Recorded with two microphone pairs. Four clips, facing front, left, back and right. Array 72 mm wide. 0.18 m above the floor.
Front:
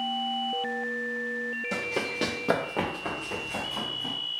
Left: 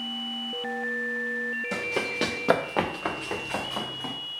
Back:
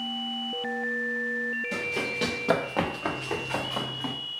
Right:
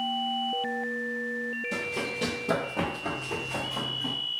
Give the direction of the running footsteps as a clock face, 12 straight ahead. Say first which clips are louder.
Left 3 dB, even; 10 o'clock.